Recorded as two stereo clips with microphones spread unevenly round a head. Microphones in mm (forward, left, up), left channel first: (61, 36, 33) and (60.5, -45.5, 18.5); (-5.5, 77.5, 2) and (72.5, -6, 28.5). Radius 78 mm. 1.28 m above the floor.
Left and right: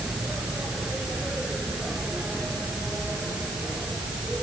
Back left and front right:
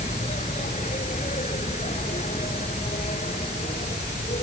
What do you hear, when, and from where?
0.0 s an insect: 175° right